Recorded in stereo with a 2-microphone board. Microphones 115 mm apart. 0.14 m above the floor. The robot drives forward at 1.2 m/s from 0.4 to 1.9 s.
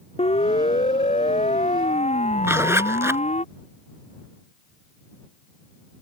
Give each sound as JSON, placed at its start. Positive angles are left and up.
{"t": 0.2, "sound": "a siren", "side_deg": 65}
{"t": 2.4, "sound": "a zipper", "side_deg": -20}